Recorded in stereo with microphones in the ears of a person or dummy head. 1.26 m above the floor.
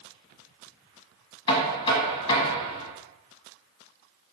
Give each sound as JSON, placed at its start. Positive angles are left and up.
{"t": 1.5, "sound": "knocking", "side_deg": 30, "distance_m": 1.1}